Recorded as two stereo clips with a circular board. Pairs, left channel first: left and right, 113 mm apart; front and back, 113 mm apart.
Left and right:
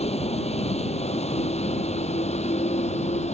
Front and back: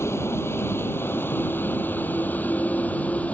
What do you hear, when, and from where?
0.0 s a vehicle: 70° left; by 3.4 s 80° left